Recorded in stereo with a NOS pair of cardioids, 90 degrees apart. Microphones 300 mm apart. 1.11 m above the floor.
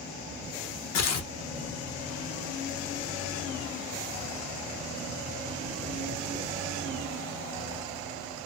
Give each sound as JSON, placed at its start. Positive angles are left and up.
{"t": 0.9, "sound": "tearing paper", "azimuth_deg": 60, "distance_m": 0.9}